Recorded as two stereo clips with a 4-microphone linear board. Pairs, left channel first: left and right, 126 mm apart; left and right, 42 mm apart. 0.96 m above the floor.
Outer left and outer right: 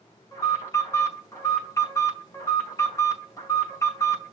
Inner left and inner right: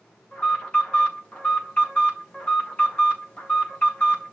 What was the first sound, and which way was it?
An alarm, 25° left (ahead or behind).